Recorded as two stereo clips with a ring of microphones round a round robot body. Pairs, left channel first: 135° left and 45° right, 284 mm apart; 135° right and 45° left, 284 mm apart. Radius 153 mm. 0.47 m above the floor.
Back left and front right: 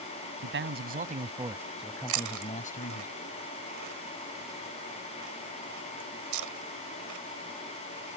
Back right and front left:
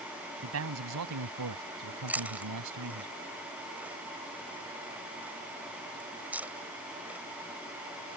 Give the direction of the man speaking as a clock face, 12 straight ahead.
12 o'clock.